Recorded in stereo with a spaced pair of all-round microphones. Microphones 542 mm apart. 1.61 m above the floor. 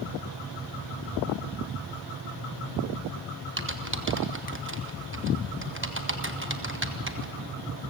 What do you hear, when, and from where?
3.6 s typing on a keyboard: 20° right (ahead or behind), 1.1 m